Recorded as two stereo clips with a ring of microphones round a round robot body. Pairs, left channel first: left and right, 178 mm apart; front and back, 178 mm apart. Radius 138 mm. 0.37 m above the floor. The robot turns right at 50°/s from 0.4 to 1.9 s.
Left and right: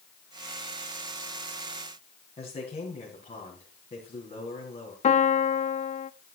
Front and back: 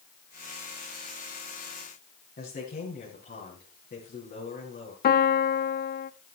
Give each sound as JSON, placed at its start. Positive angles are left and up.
{"t": 2.4, "sound": "a man speaking", "azimuth_deg": 35, "distance_m": 4.0}
{"t": 5.0, "sound": "a piano", "azimuth_deg": 35, "distance_m": 0.5}